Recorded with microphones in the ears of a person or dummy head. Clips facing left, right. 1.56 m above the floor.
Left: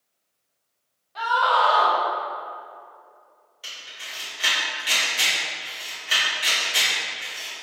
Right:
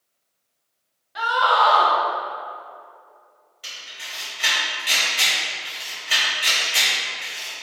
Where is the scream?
20° right (ahead or behind), 0.7 m.